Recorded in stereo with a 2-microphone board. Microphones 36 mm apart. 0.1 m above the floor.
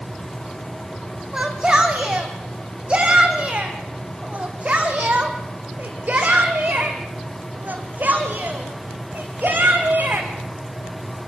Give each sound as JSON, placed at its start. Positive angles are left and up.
{"t": 1.3, "sound": "a shout", "side_deg": -20, "distance_m": 5.0}